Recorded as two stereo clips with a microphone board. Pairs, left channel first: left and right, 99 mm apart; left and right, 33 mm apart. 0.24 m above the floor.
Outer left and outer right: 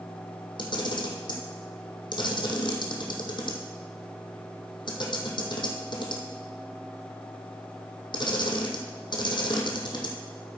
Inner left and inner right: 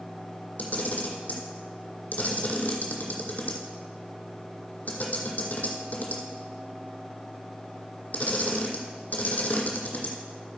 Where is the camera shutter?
50° left (ahead or behind), 1.7 m.